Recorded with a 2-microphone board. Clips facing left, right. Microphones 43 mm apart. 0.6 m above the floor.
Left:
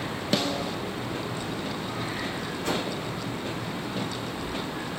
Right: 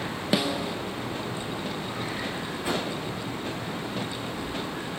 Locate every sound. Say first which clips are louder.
0.3 s a snare drum: right 1 dB; 10° right (ahead or behind), 0.9 m
2.6 s a whoosh: even; 15° right (ahead or behind), 6.5 m